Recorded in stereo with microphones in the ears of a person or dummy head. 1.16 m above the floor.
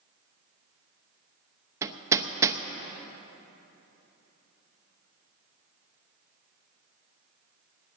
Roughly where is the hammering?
Centre.